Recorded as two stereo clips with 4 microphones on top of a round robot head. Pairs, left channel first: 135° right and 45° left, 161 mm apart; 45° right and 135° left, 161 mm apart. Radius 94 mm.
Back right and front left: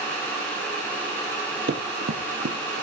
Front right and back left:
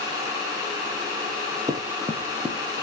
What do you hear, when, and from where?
1.7 s running footsteps: 65° left, 2 m; by 2.8 s 40° left, 3 m